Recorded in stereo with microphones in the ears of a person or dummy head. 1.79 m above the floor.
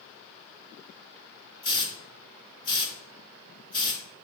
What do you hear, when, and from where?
1.6 s a hiss: 30° left (ahead or behind), 0.7 m